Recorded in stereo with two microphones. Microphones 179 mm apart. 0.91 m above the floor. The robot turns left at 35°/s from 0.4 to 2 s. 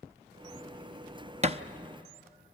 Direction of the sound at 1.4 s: 40° right (ahead or behind).